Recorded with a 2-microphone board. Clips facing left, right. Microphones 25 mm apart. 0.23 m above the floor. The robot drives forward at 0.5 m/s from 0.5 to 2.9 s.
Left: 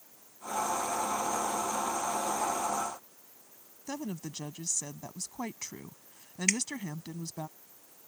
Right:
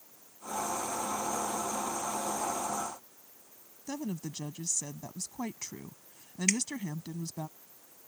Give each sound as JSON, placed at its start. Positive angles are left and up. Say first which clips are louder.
{"t": 3.9, "sound": "a woman speaking", "louder": "right 1 dB", "side_deg": 10}
{"t": 6.5, "sound": "dripping", "louder": "even", "side_deg": 10}